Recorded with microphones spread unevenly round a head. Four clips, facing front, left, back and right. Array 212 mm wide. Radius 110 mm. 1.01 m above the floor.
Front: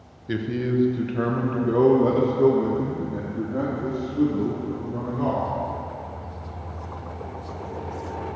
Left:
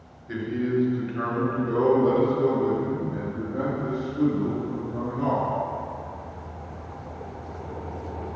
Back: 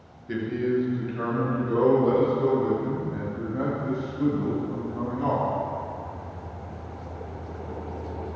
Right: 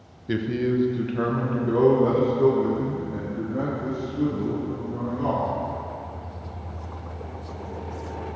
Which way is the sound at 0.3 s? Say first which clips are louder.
Right 2 dB, even; 70° right.